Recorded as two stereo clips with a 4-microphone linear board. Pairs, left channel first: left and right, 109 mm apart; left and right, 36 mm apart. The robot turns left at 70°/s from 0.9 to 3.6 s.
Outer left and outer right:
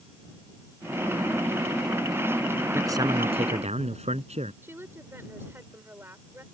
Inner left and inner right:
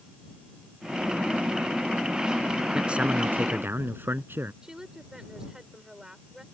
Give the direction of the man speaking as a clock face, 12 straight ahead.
1 o'clock.